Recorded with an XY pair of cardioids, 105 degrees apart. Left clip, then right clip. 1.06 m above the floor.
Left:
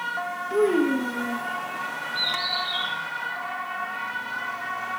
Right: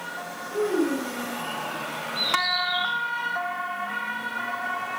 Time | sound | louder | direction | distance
0.5 | a child speaking | left 3 dB | 50° left | 0.9 m
2.1 | a bird | right 2 dB | 30° left | 4.5 m